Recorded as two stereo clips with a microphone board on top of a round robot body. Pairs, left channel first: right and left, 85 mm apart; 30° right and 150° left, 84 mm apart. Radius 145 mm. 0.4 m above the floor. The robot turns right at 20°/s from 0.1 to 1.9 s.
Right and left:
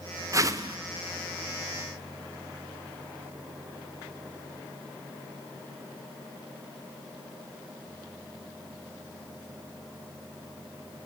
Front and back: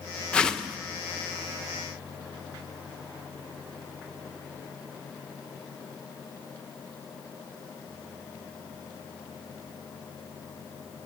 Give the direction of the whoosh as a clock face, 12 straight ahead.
10 o'clock.